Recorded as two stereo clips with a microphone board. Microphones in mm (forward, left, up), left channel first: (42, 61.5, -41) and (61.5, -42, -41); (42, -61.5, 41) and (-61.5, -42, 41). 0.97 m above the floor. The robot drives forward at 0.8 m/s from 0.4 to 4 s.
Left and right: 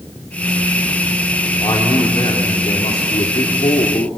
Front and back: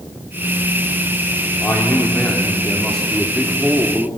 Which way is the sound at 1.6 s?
55° left.